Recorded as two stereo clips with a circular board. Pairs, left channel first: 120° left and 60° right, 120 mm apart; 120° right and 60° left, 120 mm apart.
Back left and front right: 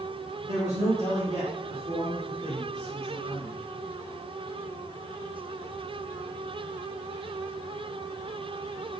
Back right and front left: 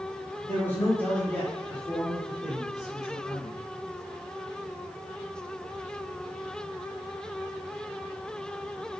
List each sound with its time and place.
0.4 s a man speaking: 55° right, 1.8 m; by 3.6 s 25° right, 4 m